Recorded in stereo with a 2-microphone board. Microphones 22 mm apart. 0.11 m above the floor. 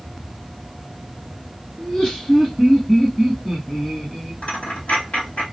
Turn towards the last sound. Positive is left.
turn(degrees=70)  # may be behind; listen again after turning